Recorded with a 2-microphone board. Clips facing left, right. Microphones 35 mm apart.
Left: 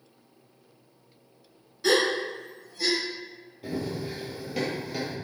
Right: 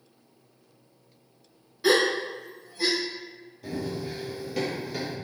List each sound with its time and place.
1.8 s a gasp: 15° right (ahead or behind), 0.9 m
3.6 s running footsteps: 15° left (ahead or behind), 1.7 m; by 5.1 s 10° right (ahead or behind), 1.7 m